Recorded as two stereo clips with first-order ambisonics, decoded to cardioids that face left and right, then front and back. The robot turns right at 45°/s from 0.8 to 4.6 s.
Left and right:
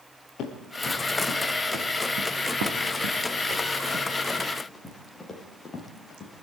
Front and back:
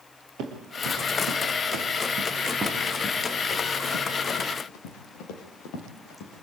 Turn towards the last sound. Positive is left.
turn(degrees=25)